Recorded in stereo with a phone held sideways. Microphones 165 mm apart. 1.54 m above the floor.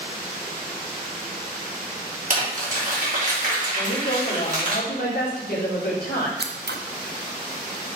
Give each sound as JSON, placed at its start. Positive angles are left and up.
{"t": 2.3, "sound": "crumpling", "side_deg": -50, "distance_m": 3.5}
{"t": 3.8, "sound": "a woman speaking", "side_deg": 75, "distance_m": 3.5}
{"t": 6.4, "sound": "scissors", "side_deg": -85, "distance_m": 0.8}